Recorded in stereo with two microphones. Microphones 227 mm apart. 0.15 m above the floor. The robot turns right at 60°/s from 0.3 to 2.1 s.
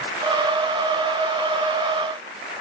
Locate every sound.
Only background noise.